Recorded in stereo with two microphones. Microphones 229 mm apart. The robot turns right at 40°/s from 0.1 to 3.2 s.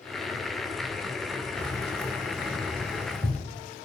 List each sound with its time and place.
1.6 s keys jangling: 15° right (ahead or behind), 0.9 m; by 3.5 s 5° left (ahead or behind), 0.9 m